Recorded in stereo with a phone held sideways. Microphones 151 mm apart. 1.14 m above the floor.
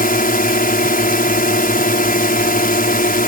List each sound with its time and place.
0.0 s a drone: 75° left (ahead or behind)